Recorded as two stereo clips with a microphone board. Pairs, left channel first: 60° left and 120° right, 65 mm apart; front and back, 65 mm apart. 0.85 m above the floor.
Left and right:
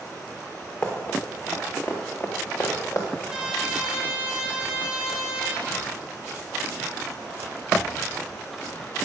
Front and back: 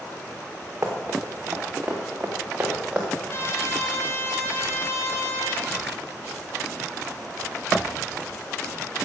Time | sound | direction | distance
0.8 | running footsteps | 120° left | 3 m
3.3 | a trumpet | 45° right | 2 m